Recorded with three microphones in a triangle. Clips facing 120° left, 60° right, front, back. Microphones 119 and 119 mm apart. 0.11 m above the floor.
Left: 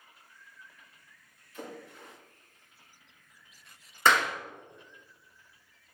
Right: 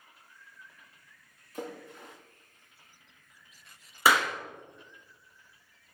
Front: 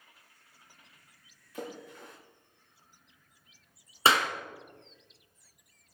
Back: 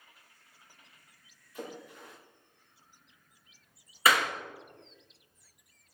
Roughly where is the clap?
Ahead.